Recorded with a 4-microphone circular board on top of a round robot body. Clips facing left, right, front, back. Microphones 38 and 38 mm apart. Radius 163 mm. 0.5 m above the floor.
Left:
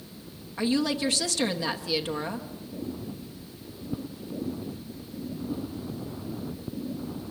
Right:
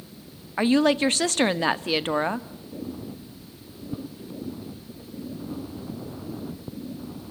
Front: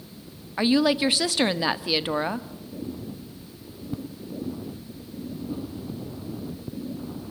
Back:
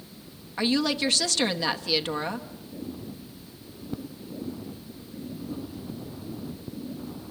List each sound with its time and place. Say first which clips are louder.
0.6 s a woman speaking: right 6 dB, front 4 dB; 70° right, 1.0 m